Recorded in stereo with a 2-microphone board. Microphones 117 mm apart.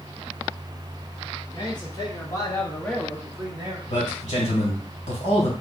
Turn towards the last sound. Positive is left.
turn(degrees=75)  # may be behind; listen again after turning